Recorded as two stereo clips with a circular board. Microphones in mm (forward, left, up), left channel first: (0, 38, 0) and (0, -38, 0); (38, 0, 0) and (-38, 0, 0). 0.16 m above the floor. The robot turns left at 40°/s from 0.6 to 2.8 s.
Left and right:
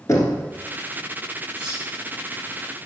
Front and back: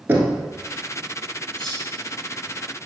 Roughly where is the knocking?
Behind left.